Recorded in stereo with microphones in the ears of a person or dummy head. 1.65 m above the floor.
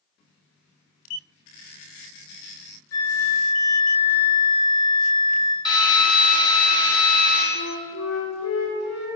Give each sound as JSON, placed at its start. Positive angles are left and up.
{"t": 2.9, "sound": "a flute", "side_deg": 20, "distance_m": 1.2}
{"t": 5.7, "sound": "a drill", "side_deg": 25, "distance_m": 4.0}
{"t": 7.5, "sound": "a flute", "side_deg": 90, "distance_m": 5.5}